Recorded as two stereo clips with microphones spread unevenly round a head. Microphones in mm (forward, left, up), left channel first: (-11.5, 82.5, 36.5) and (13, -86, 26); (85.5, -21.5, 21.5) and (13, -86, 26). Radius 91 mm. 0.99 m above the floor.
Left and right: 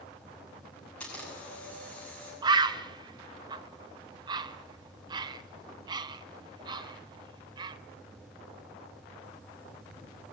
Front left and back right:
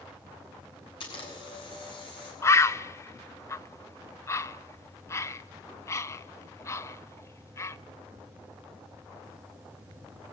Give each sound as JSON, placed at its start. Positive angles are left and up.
{"t": 1.0, "sound": "a camera shutter", "azimuth_deg": 15, "distance_m": 8.5}
{"t": 2.4, "sound": "a bird", "azimuth_deg": -20, "distance_m": 0.8}